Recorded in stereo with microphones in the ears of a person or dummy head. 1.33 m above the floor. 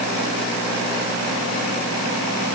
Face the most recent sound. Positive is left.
No sound to turn to.